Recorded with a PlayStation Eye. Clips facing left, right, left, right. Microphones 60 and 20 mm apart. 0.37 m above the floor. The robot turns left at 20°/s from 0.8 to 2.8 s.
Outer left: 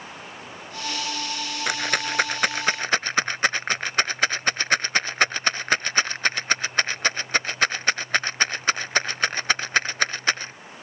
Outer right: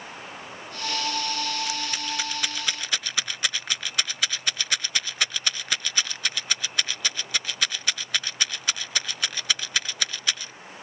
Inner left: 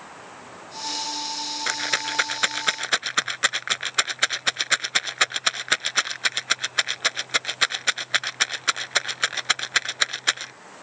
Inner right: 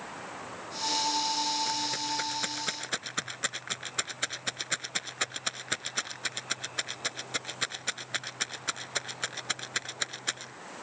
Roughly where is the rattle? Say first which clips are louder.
Outer left 6 dB, inner left 6 dB; left.